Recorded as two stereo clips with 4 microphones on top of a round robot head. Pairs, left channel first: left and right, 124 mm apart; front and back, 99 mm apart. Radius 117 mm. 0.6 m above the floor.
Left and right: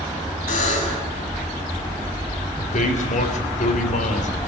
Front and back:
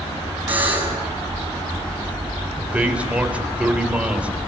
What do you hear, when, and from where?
0.5 s a buzzer: 110° left, 6.5 m
2.6 s a man speaking: 105° left, 3.5 m